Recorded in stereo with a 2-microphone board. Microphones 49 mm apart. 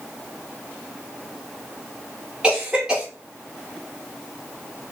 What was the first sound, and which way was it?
A cough, 15° right (ahead or behind).